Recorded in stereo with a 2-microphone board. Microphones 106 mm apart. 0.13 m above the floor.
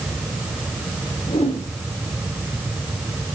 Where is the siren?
I don't hear a siren.